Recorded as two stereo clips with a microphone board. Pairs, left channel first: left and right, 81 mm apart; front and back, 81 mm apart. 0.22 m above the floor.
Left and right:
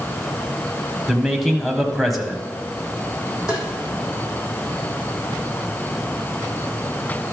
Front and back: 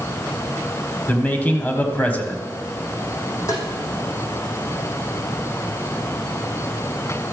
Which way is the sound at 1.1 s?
Straight ahead.